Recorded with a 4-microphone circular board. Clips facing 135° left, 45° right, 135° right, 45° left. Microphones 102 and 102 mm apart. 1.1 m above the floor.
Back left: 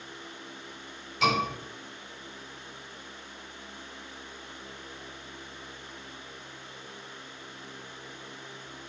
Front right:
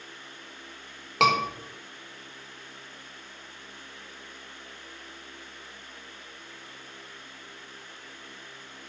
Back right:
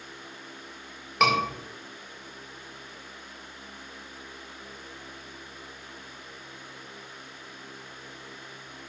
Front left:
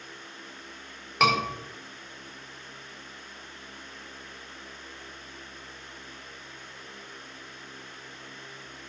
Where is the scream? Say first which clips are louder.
Front right 4 dB, even; 45° right, 4.5 m.